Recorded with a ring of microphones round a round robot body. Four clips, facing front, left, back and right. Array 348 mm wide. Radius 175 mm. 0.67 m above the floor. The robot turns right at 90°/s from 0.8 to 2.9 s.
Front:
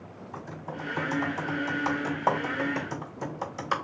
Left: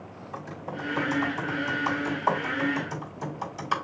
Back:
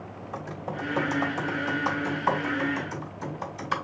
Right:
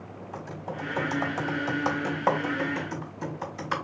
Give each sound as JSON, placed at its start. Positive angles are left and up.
{"t": 0.3, "sound": "typing on a keyboard", "azimuth_deg": -170, "distance_m": 3.5}